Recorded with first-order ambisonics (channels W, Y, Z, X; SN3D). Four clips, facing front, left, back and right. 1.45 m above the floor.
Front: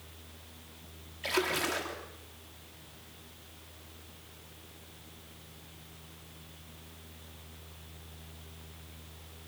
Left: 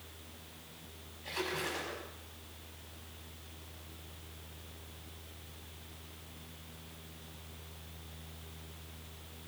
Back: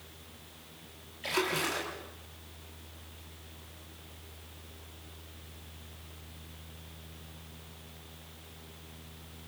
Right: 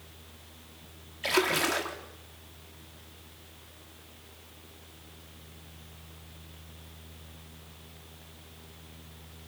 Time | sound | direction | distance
1.2 | a splash | 80° right | 3.5 m